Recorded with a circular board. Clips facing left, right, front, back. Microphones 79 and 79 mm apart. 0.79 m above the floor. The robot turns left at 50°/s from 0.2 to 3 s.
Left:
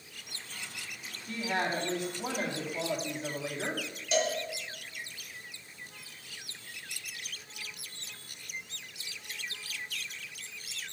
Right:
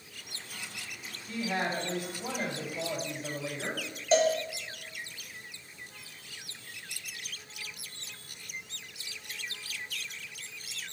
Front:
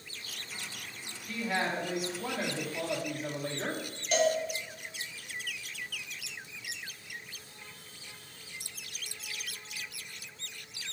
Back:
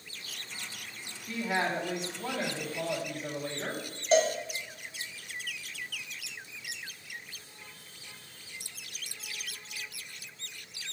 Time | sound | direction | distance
1.3 | a woman speaking | 120° left | 1.6 m
4.1 | a cowbell | 125° right | 1.2 m